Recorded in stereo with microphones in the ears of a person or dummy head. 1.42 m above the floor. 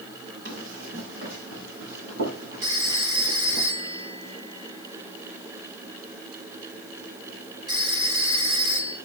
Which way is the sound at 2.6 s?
20° right (ahead or behind).